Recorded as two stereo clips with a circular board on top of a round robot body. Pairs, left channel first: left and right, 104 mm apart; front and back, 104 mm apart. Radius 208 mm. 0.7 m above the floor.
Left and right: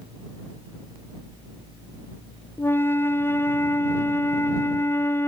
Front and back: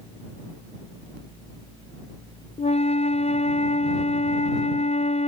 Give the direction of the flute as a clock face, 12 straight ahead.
11 o'clock.